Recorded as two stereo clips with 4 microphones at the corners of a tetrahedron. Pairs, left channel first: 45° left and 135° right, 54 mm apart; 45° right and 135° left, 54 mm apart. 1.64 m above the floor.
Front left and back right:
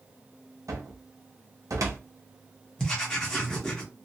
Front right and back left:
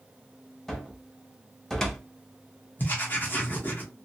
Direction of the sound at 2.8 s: 20° right.